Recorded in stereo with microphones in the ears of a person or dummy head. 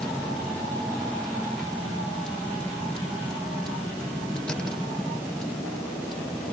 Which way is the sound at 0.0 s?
5° left (ahead or behind).